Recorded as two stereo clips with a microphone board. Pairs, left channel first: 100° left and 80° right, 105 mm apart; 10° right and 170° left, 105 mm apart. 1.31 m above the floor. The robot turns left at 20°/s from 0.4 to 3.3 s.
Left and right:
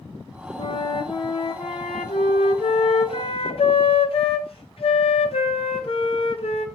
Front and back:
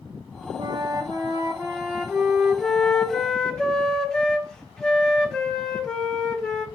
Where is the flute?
125° left, 0.6 m; by 6.7 s 70° left, 0.6 m.